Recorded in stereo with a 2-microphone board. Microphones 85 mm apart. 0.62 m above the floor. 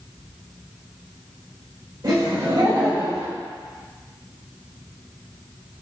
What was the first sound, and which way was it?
Laughter, 55° right (ahead or behind).